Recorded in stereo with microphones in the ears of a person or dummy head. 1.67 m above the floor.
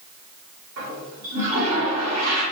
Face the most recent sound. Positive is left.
turn(degrees=-75)  # may be behind; listen again after turning